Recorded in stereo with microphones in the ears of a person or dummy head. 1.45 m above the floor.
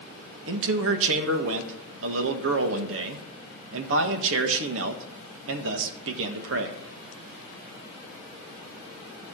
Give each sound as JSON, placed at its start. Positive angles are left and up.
{"t": 0.5, "sound": "a man speaking", "side_deg": -75, "distance_m": 1.5}